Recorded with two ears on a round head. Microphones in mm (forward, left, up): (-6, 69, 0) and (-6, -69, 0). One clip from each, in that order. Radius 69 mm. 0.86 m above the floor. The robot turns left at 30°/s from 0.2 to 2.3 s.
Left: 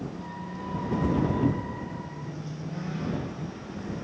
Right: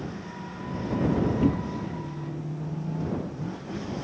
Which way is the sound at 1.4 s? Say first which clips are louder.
Right 2 dB; 55° right (ahead or behind).